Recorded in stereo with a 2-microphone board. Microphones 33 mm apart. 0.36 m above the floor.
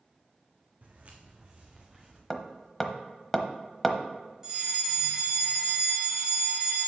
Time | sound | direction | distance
0.8 | footsteps | 45° right (ahead or behind) | 1.6 m
2.3 | hammering | 15° left (ahead or behind) | 0.7 m
4.4 | a fire alarm | 20° right (ahead or behind) | 2.5 m